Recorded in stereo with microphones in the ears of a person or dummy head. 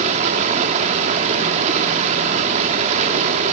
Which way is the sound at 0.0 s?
35° right (ahead or behind).